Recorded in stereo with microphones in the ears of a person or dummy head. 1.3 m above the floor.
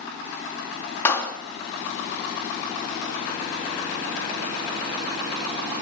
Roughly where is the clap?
Centre.